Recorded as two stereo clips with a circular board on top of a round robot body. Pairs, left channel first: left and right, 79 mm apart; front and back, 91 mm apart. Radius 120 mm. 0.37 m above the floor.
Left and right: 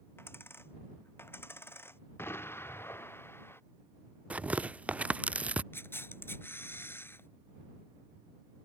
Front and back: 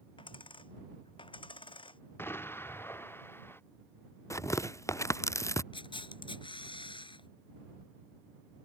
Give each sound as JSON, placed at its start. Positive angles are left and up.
{"t": 0.2, "sound": "a dropped coin", "azimuth_deg": 30}
{"t": 2.2, "sound": "an explosion", "azimuth_deg": 50}
{"t": 4.3, "sound": "tearing paper", "azimuth_deg": -30}
{"t": 5.7, "sound": "a camera shutter", "azimuth_deg": 30}